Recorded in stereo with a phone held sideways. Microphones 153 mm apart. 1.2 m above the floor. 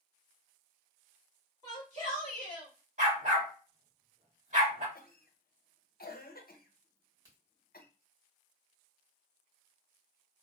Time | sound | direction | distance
1.6 | a shout | 55° right (ahead or behind) | 2 m
3.0 | a dog barking | 55° right (ahead or behind) | 1.8 m
5.0 | a cough | 75° left (ahead or behind) | 0.7 m
7.0 | a crack | 25° right (ahead or behind) | 1.6 m